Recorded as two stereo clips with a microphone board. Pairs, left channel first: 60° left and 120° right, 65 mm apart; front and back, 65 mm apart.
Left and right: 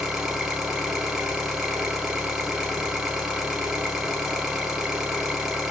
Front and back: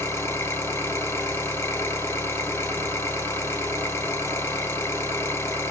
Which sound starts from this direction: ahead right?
An engine running, at 0.0 s.